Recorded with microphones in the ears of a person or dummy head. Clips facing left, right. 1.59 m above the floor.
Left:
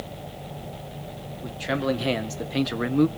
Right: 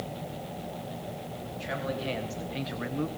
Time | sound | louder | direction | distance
1.4 | a man speaking | left 9 dB | 70° left (ahead or behind) | 1.7 m